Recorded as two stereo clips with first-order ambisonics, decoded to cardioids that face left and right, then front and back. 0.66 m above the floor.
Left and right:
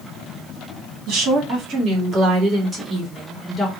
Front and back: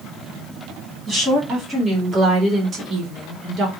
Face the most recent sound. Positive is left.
turn(degrees=170)